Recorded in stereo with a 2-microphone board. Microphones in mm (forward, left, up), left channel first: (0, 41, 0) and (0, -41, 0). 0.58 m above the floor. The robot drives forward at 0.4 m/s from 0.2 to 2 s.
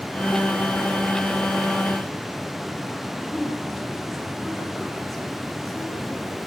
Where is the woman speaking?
5° left (ahead or behind), 7.5 m.